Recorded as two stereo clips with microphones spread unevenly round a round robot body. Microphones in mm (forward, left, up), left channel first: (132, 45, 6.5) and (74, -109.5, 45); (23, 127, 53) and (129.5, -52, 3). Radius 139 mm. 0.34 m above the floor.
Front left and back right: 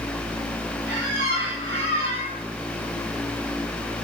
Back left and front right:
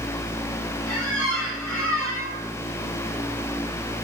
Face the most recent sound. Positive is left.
turn(degrees=-160)